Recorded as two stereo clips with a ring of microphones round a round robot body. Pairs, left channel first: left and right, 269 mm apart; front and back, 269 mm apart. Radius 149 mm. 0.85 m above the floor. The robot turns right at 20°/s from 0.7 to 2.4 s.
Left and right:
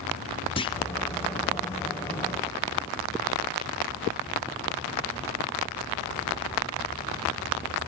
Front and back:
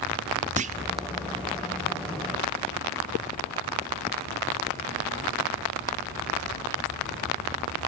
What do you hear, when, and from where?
0.6 s a clunk: 145° left, 0.7 m